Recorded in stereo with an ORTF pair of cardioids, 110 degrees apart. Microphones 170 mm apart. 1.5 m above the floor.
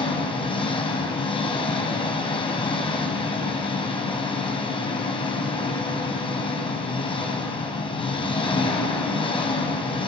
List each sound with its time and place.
0.0 s an engine running: 30° left, 4 m